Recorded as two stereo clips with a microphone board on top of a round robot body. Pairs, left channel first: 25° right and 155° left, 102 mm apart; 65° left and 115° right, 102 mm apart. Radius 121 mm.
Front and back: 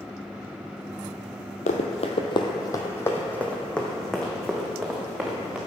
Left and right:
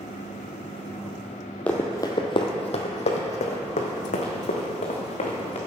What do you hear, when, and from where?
1.7 s running footsteps: 10° right, 0.7 m; by 5.6 s 70° left, 2.5 m